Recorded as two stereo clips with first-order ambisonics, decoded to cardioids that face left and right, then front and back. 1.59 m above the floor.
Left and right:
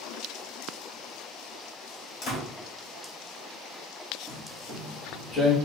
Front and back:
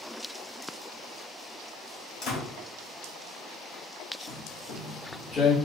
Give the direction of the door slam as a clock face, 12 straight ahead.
11 o'clock.